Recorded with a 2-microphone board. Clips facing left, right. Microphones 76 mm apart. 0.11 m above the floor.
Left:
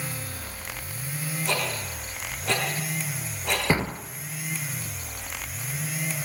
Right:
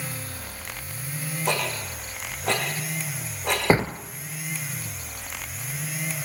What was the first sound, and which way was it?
Ticking, 60° right (ahead or behind).